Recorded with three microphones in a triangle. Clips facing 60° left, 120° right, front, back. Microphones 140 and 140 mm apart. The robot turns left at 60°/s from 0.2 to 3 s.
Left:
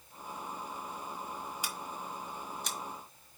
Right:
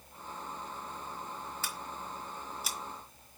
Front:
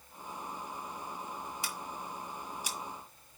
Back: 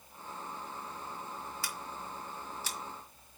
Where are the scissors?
15° left, 1.6 m; by 3.4 s 70° right, 1.6 m.